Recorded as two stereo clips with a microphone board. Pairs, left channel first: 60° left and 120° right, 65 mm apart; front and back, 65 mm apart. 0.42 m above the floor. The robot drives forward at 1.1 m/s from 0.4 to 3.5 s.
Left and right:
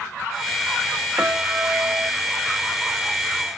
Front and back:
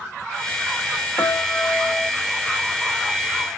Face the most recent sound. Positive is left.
turn(degrees=-135)